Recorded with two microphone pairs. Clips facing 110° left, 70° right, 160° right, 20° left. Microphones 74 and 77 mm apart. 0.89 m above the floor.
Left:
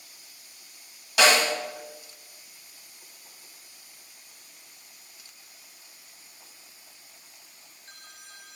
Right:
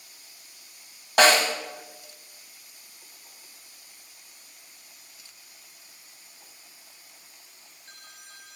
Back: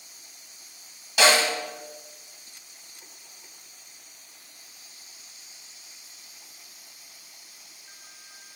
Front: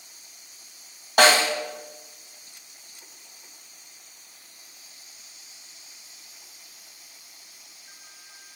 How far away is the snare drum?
About 1.6 m.